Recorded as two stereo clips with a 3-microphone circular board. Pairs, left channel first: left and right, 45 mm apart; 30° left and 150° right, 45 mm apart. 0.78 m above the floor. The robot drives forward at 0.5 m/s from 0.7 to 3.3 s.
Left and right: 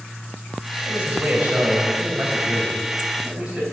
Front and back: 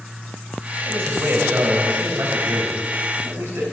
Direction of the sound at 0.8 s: 145° right.